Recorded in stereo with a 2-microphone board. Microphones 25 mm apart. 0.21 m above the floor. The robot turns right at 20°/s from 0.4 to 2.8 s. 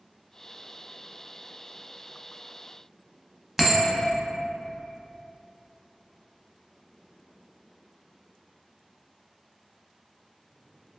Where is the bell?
10° right (ahead or behind), 0.6 m.